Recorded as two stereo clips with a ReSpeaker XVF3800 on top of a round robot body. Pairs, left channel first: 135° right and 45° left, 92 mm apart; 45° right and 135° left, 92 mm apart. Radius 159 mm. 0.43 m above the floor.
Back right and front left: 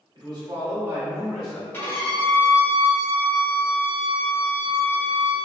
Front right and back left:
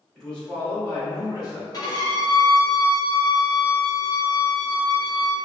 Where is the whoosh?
I don't hear a whoosh.